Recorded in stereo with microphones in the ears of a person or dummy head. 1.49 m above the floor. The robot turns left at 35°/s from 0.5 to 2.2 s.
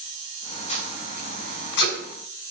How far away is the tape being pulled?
About 5.5 m.